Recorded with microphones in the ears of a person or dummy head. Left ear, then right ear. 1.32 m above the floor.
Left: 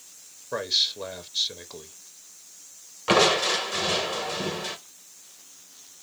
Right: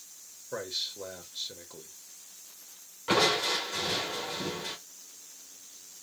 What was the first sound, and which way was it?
A man speaking, 35° left (ahead or behind).